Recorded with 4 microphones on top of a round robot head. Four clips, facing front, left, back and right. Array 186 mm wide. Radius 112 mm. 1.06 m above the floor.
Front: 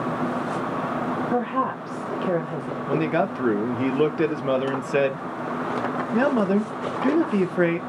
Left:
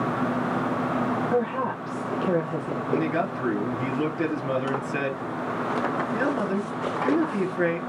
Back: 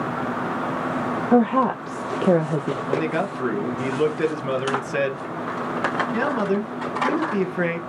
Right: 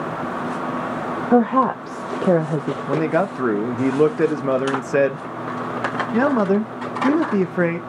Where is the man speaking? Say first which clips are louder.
Right 5 dB, front 3 dB; 70° right, 1.2 m.